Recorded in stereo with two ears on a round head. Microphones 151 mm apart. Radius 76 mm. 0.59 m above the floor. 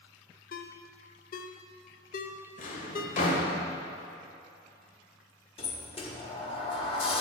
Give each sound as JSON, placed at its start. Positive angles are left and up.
{"t": 0.5, "sound": "a ringtone", "side_deg": 55, "distance_m": 0.6}
{"t": 2.6, "sound": "a drawer", "side_deg": 50, "distance_m": 1.5}
{"t": 5.6, "sound": "a sliding door", "side_deg": 35, "distance_m": 1.1}